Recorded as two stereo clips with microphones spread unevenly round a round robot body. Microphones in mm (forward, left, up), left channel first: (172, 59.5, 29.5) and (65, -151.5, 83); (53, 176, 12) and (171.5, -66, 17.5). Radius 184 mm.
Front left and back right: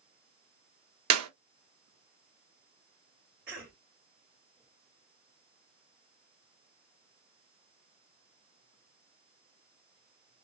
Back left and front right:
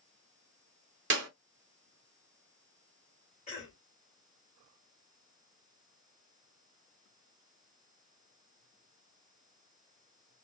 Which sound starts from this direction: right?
A clap, at 1.1 s.